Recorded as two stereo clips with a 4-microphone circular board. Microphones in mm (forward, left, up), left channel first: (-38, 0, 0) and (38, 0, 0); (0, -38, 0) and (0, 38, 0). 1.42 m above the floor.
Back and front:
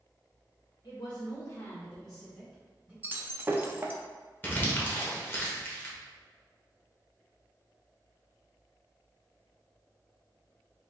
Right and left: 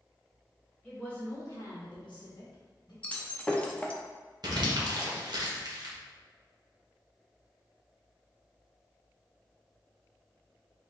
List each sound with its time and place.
0.8 s a woman speaking: 170° right, 1.5 m; by 2.9 s 70° right, 2.5 m
3.0 s breaking glass: 35° right, 0.6 m
4.4 s crumpling: 115° left, 1.2 m